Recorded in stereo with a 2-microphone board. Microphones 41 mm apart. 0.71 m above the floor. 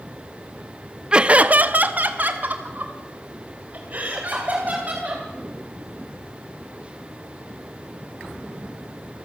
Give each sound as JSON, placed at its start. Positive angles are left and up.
{"t": 1.1, "sound": "laughter", "side_deg": -20, "distance_m": 0.5}